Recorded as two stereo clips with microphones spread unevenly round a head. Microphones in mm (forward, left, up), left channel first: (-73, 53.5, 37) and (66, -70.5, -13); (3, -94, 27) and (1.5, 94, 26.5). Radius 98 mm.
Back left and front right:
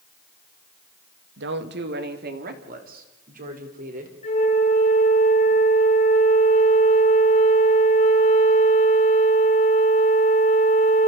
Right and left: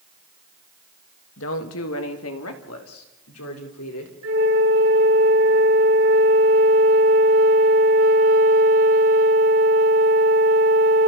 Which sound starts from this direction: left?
A flute, at 4.2 s.